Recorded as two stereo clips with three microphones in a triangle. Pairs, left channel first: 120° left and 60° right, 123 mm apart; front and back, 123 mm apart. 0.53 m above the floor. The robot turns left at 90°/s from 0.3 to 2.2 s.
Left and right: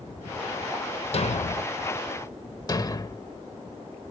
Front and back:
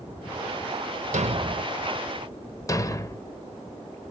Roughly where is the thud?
Behind.